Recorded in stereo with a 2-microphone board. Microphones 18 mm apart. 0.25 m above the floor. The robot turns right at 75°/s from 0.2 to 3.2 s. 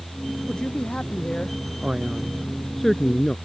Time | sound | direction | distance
0.5 | a man speaking | 45° left | ?
1.8 | a man speaking | 60° right | ?